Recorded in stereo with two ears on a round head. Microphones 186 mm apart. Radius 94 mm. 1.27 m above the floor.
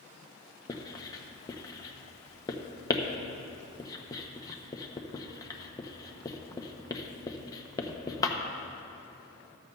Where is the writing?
15° left (ahead or behind), 0.6 m.